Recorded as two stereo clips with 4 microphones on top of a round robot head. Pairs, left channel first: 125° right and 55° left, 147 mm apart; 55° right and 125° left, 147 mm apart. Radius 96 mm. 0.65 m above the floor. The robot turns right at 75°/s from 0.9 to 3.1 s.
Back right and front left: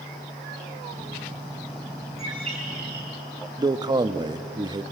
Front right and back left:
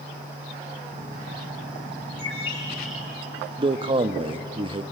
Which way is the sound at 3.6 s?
100° left.